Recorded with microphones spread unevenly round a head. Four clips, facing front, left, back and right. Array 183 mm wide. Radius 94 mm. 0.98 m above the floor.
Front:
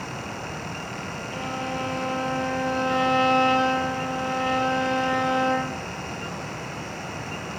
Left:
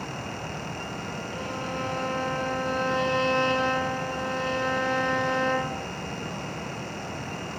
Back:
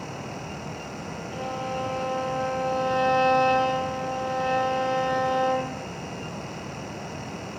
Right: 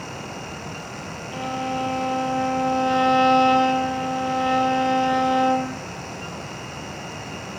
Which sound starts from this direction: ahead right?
A violin, at 1.3 s.